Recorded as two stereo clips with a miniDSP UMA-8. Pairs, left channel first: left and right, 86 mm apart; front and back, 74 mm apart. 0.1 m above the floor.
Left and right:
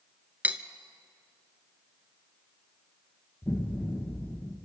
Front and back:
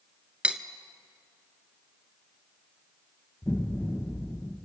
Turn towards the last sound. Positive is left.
turn(degrees=35)